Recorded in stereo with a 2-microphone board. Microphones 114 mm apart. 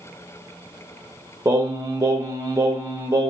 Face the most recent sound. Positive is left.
turn(degrees=-30)  # may be behind; listen again after turning